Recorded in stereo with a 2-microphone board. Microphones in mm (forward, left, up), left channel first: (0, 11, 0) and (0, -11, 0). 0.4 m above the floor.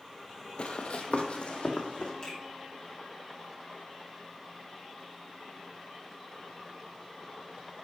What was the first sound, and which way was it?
Running footsteps, 55° left (ahead or behind).